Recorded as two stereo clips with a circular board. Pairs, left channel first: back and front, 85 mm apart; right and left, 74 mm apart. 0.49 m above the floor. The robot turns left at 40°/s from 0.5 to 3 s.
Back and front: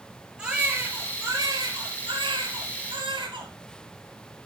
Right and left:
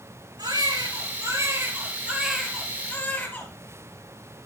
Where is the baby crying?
80° left, 5.5 m; by 3.5 s 20° right, 5.5 m.